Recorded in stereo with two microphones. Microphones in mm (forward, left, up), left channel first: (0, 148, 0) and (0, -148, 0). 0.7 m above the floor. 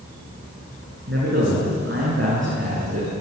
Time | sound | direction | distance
1.1 | a man speaking | 40° right (ahead or behind) | 7.5 m